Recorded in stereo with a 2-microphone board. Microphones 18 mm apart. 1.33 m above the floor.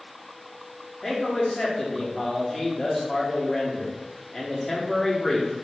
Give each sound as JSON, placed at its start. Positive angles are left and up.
{"t": 1.0, "sound": "a man speaking", "side_deg": 20, "distance_m": 1.2}